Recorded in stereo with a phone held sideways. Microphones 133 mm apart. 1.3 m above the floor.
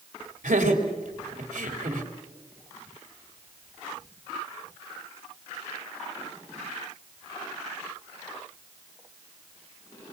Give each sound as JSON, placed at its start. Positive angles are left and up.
{"t": 0.4, "sound": "laughter", "side_deg": -85, "distance_m": 3.5}